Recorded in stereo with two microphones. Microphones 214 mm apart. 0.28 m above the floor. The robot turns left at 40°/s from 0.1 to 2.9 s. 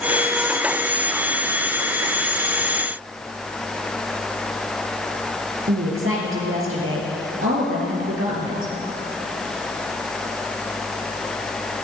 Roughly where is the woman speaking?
Right.